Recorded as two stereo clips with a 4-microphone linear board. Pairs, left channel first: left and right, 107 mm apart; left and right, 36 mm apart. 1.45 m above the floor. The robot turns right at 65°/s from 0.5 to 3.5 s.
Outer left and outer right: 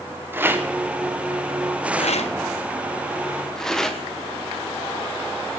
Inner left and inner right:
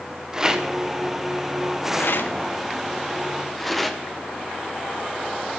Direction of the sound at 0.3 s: 20° right (ahead or behind).